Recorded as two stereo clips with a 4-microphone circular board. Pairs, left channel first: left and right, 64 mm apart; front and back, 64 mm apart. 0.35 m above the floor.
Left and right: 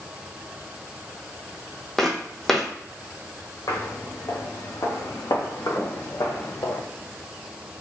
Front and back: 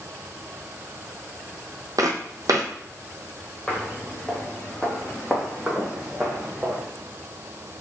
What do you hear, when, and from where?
2.0 s footsteps: 175° left, 0.9 m
3.7 s footsteps: 80° left, 2.5 m; by 6.8 s 110° left, 1.4 m